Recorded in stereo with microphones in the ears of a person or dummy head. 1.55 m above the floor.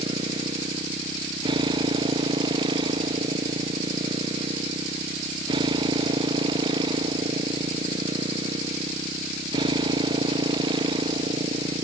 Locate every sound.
0.0 s a motorcycle: 25° right (ahead or behind)